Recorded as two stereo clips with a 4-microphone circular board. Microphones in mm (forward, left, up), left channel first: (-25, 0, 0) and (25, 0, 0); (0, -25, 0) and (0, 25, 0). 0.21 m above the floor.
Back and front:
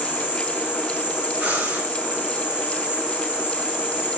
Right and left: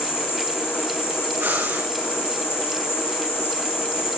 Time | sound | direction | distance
0.0 | an insect | 70° right | 9.5 m
1.4 | breathing | 55° left | 8.5 m